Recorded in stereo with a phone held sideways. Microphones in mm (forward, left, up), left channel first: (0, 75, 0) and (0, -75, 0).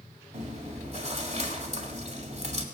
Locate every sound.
0.3 s chewing: 50° right (ahead or behind), 1.8 m